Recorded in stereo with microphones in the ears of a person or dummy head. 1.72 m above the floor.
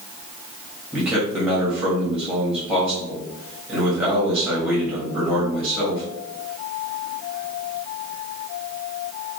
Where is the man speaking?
5° right (ahead or behind), 1.5 m.